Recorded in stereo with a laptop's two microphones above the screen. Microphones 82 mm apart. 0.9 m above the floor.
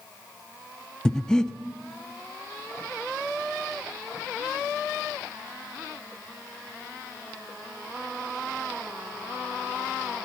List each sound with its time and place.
1.1 s breathing: 10° left (ahead or behind), 0.7 m